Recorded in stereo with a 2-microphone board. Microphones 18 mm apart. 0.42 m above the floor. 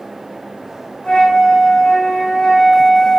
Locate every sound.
1.0 s a flute: 70° left (ahead or behind), 2 m